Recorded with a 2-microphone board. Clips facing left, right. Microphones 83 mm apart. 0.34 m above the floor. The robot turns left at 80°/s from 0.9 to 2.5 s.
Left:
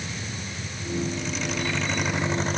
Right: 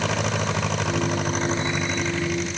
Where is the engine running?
95° right; by 2.6 s 135° left.